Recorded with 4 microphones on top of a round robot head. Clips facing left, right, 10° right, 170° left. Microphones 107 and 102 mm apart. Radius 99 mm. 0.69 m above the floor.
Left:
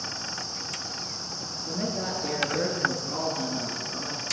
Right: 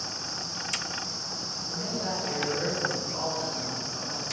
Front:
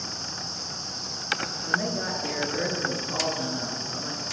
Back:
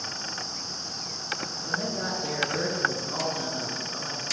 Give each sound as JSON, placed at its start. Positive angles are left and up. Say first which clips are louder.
{"t": 1.7, "sound": "a woman speaking", "louder": "left 2 dB, front 2 dB", "azimuth_deg": 100, "distance_m": 10.0}